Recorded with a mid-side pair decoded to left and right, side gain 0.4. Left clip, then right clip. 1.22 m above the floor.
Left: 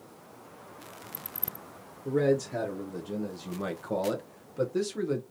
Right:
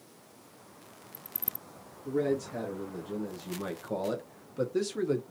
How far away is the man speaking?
About 1.4 m.